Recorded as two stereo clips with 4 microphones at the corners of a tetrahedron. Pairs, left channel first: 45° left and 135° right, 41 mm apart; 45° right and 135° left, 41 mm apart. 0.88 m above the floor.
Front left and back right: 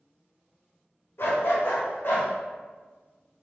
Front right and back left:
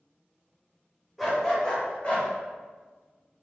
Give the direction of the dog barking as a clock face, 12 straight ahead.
11 o'clock.